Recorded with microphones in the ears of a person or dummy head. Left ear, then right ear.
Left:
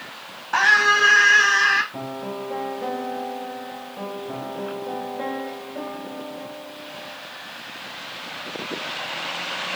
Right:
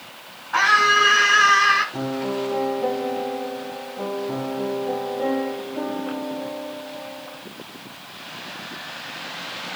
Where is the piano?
70° left (ahead or behind), 9.5 m.